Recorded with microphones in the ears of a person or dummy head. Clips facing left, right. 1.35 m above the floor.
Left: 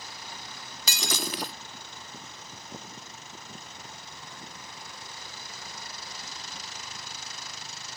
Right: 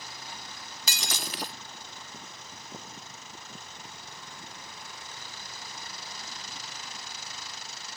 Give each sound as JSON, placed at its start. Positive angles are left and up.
{"t": 0.9, "sound": "breaking glass", "side_deg": 75}